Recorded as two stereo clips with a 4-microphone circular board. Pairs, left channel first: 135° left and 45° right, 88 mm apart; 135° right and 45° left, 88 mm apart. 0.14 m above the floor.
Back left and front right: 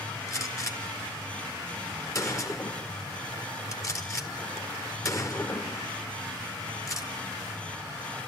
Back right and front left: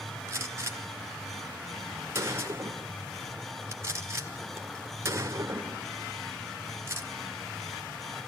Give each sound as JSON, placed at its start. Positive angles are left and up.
{"t": 0.3, "sound": "a gunshot", "azimuth_deg": 95, "distance_m": 1.8}